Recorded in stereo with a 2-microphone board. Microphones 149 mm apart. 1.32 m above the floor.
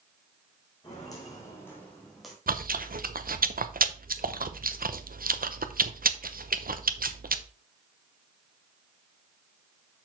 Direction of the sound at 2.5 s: 75° right (ahead or behind).